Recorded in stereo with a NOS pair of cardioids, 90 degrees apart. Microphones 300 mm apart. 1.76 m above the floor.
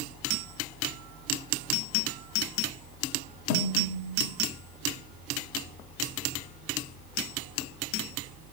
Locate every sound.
3.5 s a snare drum: 65° left, 0.7 m